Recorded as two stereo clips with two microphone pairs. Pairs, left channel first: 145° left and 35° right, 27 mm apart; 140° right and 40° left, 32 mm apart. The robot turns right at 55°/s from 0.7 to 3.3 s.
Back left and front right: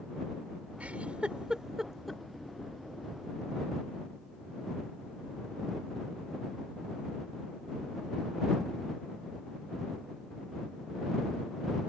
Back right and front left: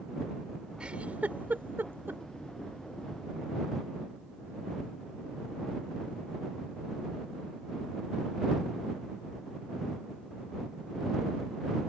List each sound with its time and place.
0.8 s a giggle: 20° right; by 2.2 s 60° left